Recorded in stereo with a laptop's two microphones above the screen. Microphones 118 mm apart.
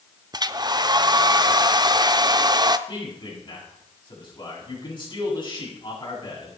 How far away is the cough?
I don't hear a cough.